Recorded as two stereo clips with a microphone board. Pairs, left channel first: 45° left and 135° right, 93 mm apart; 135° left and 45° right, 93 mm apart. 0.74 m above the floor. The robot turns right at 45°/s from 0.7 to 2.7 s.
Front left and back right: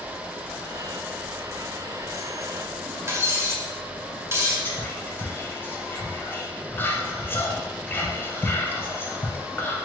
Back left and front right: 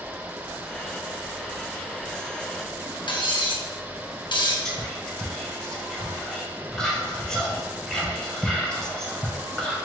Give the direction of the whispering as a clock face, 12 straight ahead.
10 o'clock.